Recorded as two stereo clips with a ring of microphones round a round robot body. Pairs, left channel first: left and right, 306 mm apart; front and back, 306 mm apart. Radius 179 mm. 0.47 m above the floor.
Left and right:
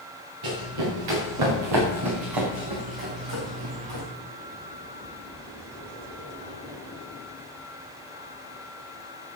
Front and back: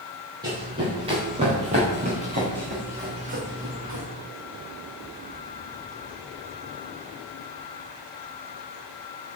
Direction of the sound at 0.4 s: 100° right.